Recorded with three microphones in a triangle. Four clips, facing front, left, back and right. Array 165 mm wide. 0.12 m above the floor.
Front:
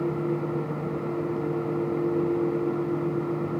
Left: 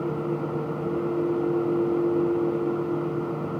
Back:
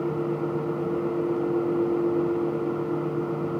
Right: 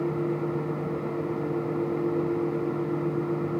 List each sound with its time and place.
Only background noise.